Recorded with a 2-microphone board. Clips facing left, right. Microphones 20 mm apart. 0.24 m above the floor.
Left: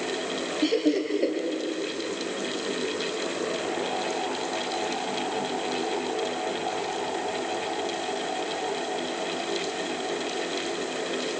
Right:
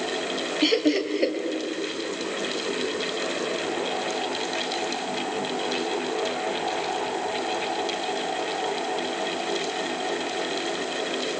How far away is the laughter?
About 1.8 m.